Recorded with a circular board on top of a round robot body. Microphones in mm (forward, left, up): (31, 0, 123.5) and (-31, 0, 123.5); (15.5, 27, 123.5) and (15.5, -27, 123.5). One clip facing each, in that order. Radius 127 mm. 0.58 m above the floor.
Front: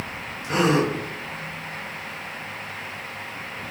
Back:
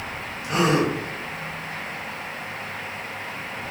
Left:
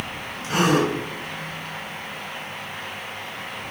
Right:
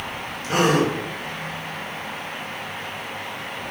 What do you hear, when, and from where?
0.4 s a gasp: 55° right, 1.8 m